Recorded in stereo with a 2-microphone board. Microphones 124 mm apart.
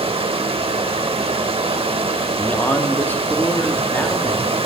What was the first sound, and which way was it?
Running water, 50° right (ahead or behind).